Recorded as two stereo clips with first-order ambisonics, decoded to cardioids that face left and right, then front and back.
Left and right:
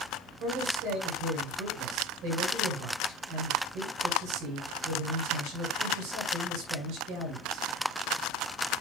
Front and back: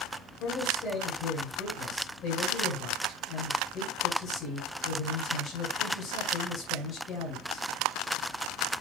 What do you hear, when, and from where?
0.4 s a man speaking: 45° right, 5.5 m